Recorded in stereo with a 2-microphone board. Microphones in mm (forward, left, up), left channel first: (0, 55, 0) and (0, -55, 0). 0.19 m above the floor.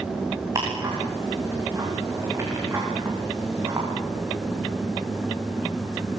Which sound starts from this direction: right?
Ticking, at 0.6 s.